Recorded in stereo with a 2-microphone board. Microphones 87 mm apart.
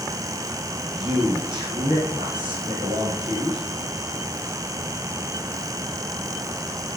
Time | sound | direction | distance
0.8 | a man speaking | 50° right (ahead or behind) | 3.5 m